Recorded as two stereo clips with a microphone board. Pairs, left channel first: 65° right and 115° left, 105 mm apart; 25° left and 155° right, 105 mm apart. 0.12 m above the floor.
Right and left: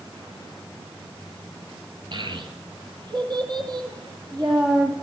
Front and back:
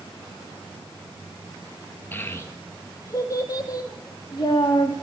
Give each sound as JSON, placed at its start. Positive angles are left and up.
{"t": 2.1, "sound": "a child speaking", "azimuth_deg": 90, "distance_m": 1.1}